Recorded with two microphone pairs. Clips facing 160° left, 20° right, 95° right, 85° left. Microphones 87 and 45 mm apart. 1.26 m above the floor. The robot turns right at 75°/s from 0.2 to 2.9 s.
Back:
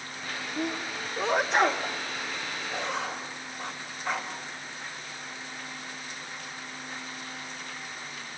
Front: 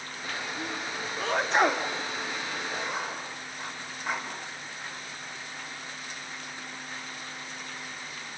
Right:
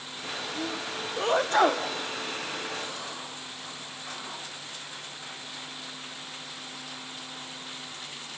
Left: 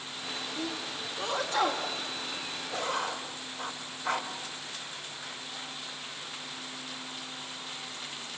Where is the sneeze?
175° left, 1.0 m; by 1.9 s 85° right, 1.0 m.